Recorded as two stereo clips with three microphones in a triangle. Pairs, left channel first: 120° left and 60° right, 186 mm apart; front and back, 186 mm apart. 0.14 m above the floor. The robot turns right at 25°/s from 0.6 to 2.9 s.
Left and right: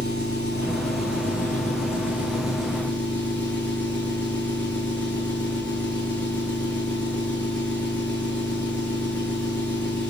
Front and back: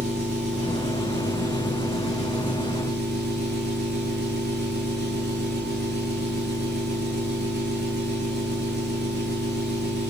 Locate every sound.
0.0 s an engine running: 145° left, 9 m; by 10.1 s 155° right, 9 m